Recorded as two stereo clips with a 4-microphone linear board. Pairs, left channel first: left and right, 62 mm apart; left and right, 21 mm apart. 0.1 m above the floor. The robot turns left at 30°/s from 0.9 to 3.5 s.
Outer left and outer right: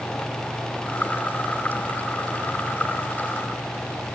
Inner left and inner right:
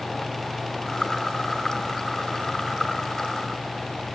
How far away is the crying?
No crying in this recording.